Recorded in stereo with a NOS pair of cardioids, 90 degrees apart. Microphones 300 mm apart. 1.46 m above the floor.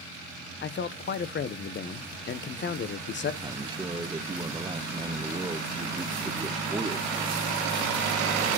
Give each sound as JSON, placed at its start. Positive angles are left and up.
{"t": 0.6, "sound": "a man speaking", "azimuth_deg": 35, "distance_m": 0.8}
{"t": 3.4, "sound": "a man speaking", "azimuth_deg": -15, "distance_m": 0.8}